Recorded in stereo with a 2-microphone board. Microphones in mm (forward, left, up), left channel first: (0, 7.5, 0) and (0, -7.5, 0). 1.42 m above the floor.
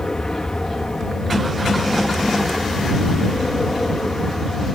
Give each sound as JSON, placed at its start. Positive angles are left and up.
{"t": 0.0, "sound": "an aircraft", "side_deg": 50}